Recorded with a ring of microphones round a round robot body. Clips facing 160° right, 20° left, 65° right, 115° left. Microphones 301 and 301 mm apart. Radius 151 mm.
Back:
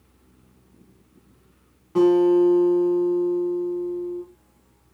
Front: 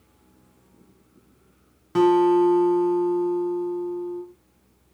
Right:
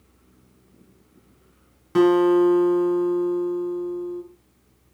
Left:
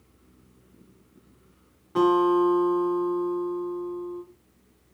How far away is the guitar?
About 4 m.